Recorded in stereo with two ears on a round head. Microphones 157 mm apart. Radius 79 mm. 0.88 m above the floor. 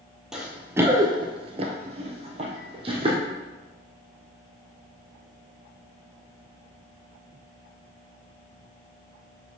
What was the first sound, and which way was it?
Running footsteps, centre (ahead or behind).